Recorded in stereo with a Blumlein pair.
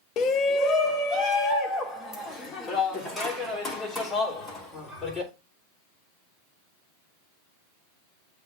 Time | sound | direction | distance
0.2 | a shout | 35° left | 0.8 m